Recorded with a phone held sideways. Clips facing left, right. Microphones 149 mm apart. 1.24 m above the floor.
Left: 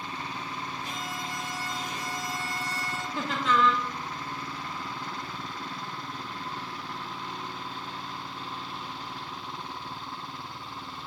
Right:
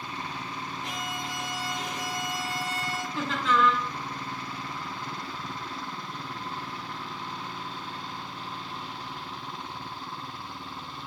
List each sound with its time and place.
0.8 s a violin: 70° right (ahead or behind), 1.9 m
3.1 s laughter: 10° left (ahead or behind), 0.7 m